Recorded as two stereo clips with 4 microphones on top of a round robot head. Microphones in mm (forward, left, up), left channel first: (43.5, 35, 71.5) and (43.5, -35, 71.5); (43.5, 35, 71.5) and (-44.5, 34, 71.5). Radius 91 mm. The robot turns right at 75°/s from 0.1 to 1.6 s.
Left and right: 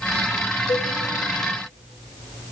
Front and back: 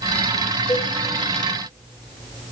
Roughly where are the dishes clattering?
Ahead left.